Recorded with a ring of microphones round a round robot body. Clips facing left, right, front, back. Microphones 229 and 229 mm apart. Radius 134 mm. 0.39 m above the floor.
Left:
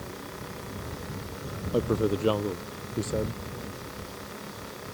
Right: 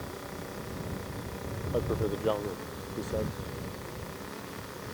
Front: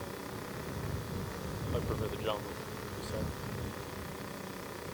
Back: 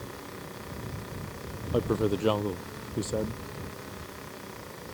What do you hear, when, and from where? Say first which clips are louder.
1.7 s a man speaking: left 5 dB, back 12 dB; 150° left